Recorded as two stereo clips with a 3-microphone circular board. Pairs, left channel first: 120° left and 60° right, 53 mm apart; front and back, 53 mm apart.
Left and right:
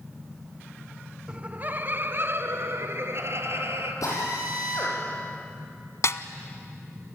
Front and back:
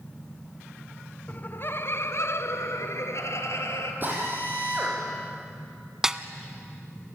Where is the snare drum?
100° left, 0.9 m.